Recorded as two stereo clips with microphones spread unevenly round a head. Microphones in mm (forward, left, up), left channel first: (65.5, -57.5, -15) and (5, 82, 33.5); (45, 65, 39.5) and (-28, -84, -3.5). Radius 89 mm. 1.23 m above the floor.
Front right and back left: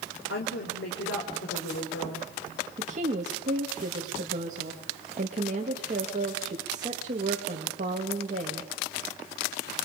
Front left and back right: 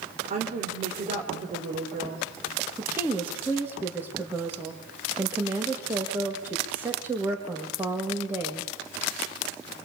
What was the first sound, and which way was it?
A woman speaking, 65° right.